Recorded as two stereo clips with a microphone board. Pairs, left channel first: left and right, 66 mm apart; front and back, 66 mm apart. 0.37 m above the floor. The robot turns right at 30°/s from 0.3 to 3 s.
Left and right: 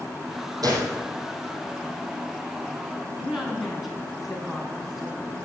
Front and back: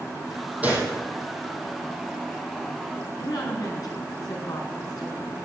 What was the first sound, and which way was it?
A gunshot, 110° right.